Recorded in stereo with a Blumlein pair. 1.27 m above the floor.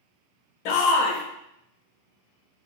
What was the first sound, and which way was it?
A shout, 45° left.